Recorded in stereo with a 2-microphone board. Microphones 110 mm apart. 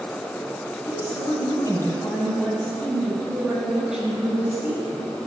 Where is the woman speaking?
45° left (ahead or behind), 1.8 m; by 5.2 s 20° right (ahead or behind), 3 m.